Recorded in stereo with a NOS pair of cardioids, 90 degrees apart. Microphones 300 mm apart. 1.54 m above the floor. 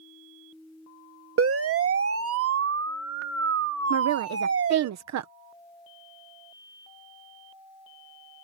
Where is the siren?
50° right.